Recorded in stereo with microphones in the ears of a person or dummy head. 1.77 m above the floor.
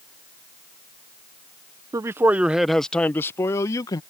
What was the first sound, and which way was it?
A man speaking, 20° right (ahead or behind).